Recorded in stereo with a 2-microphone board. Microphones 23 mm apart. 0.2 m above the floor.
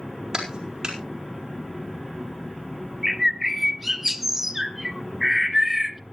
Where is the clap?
30° right (ahead or behind), 4.5 m.